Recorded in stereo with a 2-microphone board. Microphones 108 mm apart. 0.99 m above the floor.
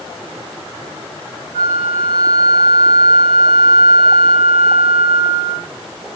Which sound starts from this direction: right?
A flute, at 1.5 s.